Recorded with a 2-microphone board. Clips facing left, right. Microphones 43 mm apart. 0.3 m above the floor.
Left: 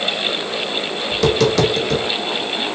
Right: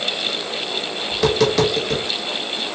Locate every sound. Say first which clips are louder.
1.1 s tapping: left 1 dB; 5° right (ahead or behind), 1.2 m